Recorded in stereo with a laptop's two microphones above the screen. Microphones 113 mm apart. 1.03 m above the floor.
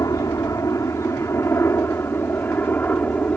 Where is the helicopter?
25° left (ahead or behind); by 3.4 s 10° left (ahead or behind).